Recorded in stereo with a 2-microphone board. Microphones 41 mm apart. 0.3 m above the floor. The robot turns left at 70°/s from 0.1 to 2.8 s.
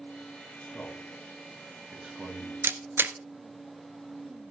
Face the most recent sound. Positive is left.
turn(degrees=-65)  # may be behind; listen again after turning